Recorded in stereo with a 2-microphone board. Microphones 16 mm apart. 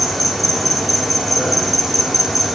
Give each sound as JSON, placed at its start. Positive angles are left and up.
{"t": 0.0, "sound": "an insect", "side_deg": -5, "distance_m": 9.5}